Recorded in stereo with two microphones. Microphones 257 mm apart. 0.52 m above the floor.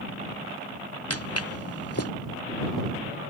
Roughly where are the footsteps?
Left.